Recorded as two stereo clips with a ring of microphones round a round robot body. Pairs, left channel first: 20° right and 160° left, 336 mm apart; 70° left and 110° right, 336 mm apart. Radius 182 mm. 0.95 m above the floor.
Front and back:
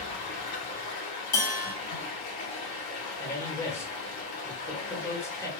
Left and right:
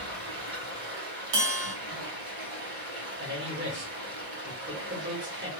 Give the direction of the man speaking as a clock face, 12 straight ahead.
3 o'clock.